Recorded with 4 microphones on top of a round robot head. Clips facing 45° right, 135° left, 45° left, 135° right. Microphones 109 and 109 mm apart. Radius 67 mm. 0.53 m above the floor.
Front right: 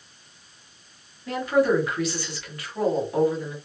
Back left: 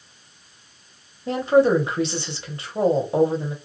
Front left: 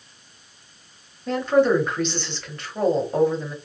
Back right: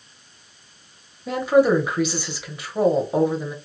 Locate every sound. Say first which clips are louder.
1.3 s a woman speaking: back left 4 dB, back right 1 dB; 155° left, 0.8 m